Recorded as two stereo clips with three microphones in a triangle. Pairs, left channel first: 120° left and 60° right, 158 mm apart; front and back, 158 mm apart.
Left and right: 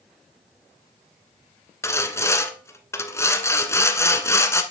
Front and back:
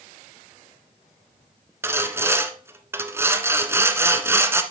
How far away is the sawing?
About 1.1 m.